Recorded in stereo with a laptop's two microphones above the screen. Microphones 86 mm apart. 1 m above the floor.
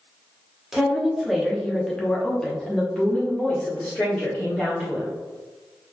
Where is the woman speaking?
5° right (ahead or behind), 0.9 m; by 5.1 s 10° left (ahead or behind), 2.0 m.